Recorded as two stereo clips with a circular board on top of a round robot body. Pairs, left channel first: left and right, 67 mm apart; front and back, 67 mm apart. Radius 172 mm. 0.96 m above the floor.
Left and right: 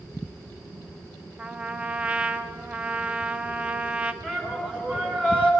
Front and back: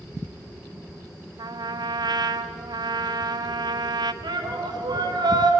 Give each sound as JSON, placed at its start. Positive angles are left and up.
{"t": 1.4, "sound": "a trumpet", "azimuth_deg": -165, "distance_m": 0.7}
{"t": 4.2, "sound": "a shout", "azimuth_deg": -160, "distance_m": 3.5}